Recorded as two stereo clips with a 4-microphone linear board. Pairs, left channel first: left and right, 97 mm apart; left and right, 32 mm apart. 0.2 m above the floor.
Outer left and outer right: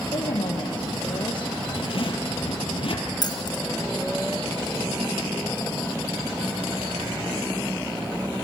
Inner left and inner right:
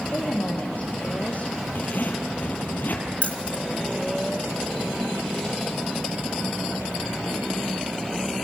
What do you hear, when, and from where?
0.1 s a woman speaking: 60° left (ahead or behind), 5 m; by 1.5 s 50° left (ahead or behind), 4 m
1.8 s a zipper: 70° left (ahead or behind), 3 m
3.2 s keys jangling: 50° left (ahead or behind), 1.9 m